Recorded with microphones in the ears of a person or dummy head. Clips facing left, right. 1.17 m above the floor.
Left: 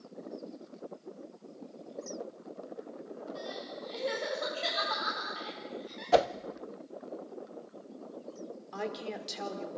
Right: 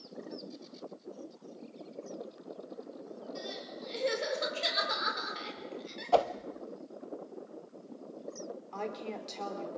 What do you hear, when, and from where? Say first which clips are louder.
3.4 s crying: left 1 dB; 30° right (ahead or behind), 5 m
6.1 s a whoosh: left 2 dB; 20° left (ahead or behind), 0.5 m
8.7 s a woman speaking: left 2 dB; 15° left (ahead or behind), 3.5 m